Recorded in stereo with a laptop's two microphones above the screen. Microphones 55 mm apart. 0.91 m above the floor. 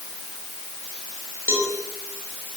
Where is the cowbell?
45° right (ahead or behind), 6 m.